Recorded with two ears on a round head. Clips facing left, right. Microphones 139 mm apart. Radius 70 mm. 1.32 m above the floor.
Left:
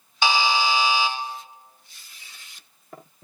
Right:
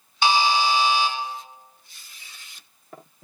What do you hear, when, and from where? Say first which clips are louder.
0.2 s a buzzer: right 2 dB; 65° left (ahead or behind), 0.8 m